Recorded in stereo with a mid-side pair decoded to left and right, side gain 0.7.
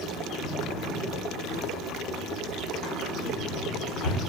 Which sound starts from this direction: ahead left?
A drawer, at 0.4 s.